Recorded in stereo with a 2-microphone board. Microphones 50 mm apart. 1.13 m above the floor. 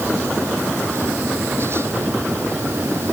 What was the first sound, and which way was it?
Only background noise.